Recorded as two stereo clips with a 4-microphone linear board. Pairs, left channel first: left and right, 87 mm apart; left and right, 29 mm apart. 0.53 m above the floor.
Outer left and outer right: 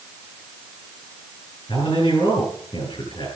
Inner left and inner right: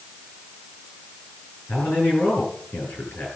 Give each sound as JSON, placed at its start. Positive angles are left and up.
{"t": 1.7, "sound": "a man speaking", "side_deg": 70, "distance_m": 9.5}